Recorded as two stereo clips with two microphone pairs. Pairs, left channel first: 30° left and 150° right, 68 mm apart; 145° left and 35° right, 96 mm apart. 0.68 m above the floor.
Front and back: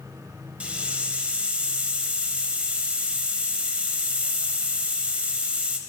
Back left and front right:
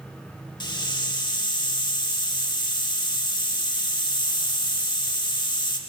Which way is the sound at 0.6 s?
145° left.